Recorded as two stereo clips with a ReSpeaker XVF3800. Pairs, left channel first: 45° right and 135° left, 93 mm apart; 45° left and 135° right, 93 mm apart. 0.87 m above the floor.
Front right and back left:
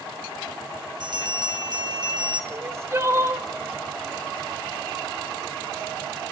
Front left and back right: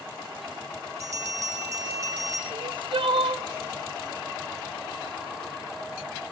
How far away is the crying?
About 0.9 m.